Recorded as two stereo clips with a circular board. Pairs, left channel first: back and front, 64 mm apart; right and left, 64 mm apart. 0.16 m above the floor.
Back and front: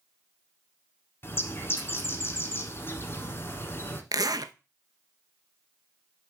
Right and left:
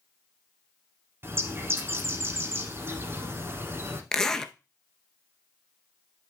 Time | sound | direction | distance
1.2 | a bird | 135° left | 1.2 m
4.1 | a zipper | 10° right | 0.6 m